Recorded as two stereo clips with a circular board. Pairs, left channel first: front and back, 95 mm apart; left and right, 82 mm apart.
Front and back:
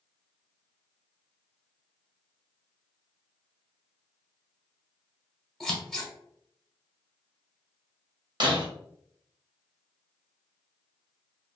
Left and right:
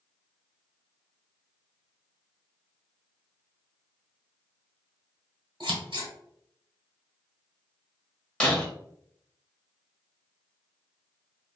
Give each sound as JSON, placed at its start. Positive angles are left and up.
{"t": 5.6, "sound": "scissors", "azimuth_deg": -85, "distance_m": 1.0}
{"t": 8.4, "sound": "breaking glass", "azimuth_deg": 165, "distance_m": 1.0}